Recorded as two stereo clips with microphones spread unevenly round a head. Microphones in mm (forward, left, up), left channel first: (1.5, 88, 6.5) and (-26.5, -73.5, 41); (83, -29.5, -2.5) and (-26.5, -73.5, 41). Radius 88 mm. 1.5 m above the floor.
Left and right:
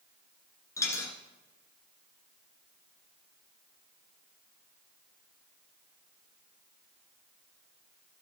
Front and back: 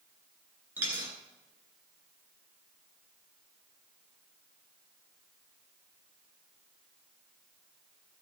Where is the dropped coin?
160° left, 1.8 m.